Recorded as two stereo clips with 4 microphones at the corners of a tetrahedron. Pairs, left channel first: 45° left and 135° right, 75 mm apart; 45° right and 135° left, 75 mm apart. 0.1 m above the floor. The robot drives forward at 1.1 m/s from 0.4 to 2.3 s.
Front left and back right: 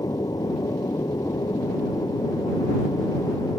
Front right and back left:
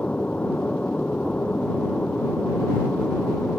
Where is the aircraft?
25° left; by 3.6 s 30° left.